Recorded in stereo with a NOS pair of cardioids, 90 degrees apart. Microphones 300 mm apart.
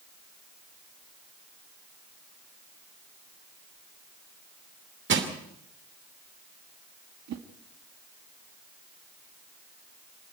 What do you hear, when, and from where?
5.1 s crushing: 40° right, 2.5 m
7.3 s a whoosh: 60° right, 2.0 m